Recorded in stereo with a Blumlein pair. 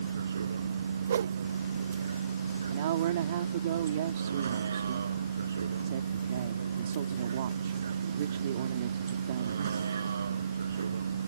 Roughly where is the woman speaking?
Ahead right.